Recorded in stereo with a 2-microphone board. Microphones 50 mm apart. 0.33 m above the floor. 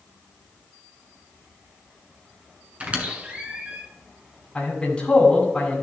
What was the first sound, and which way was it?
A squeak, 25° right (ahead or behind).